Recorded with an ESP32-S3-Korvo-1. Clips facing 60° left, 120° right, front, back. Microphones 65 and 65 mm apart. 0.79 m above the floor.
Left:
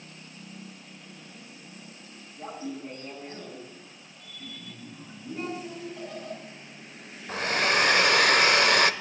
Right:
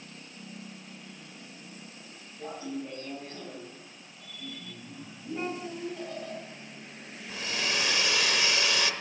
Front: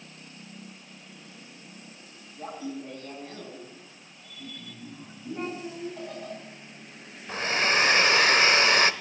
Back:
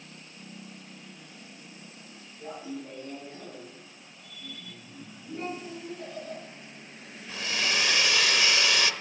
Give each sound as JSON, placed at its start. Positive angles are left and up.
{"t": 2.4, "sound": "laughter", "azimuth_deg": -5, "distance_m": 5.5}
{"t": 5.3, "sound": "a child speaking", "azimuth_deg": -40, "distance_m": 7.0}
{"t": 7.3, "sound": "a hair dryer", "azimuth_deg": 40, "distance_m": 0.7}